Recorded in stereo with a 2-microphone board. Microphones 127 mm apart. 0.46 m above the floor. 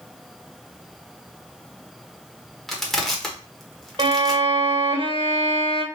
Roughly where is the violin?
Right.